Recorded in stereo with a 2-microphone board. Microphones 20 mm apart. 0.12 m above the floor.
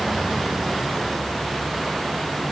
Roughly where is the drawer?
I don't hear a drawer.